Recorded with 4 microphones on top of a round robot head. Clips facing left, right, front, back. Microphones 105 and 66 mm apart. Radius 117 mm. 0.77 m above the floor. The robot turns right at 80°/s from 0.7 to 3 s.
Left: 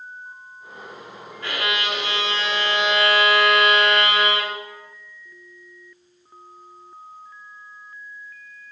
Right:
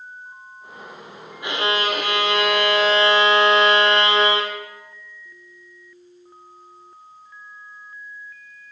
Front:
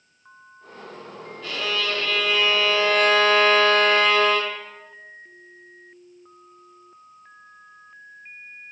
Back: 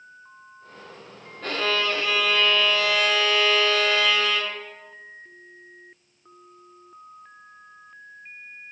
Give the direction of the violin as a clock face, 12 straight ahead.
5 o'clock.